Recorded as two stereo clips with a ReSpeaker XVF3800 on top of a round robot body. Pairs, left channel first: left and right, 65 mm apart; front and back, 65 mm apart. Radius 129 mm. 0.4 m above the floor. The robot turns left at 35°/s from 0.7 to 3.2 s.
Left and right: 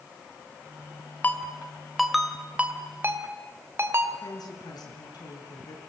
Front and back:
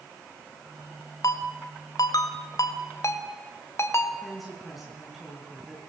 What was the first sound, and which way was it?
A ringtone, 30° left.